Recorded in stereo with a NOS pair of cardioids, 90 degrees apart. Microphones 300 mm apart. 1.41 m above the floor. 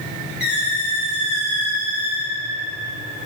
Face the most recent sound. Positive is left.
turn(degrees=35)